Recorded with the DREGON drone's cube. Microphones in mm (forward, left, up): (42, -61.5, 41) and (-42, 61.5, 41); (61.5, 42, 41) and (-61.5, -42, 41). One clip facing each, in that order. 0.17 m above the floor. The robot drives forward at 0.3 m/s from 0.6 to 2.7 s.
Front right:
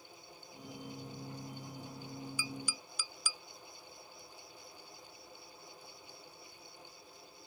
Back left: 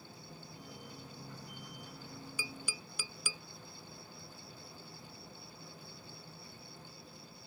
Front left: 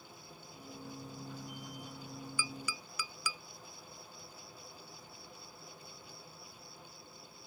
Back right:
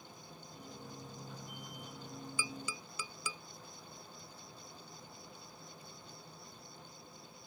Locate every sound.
0.0 s an insect: 140° left; by 7.5 s 145° left
2.4 s tapping: 150° left